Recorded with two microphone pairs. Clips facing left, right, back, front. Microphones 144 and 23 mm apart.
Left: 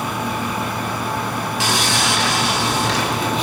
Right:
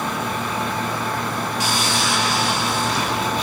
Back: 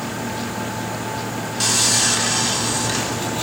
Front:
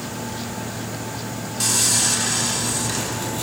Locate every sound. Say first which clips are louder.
1.6 s sawing: left 3 dB, back 2 dB; 105° left, 3 m